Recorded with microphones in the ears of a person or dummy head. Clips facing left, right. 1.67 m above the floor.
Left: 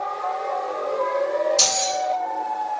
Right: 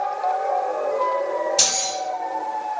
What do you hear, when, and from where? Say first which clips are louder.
1.6 s keys jangling: left 3 dB; 25° right (ahead or behind), 1.1 m